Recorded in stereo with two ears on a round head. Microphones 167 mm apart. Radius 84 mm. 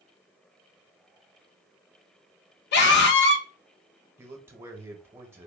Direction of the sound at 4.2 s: 10° right (ahead or behind).